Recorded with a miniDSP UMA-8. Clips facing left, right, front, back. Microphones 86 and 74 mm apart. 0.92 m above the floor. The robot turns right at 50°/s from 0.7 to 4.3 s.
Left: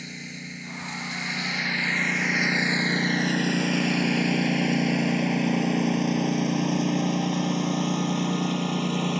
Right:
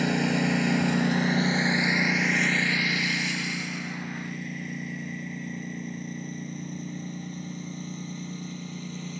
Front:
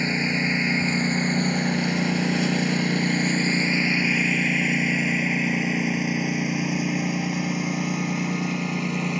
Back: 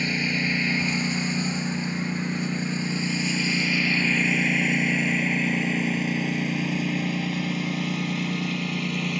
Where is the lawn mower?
65° right; by 9.2 s 70° left.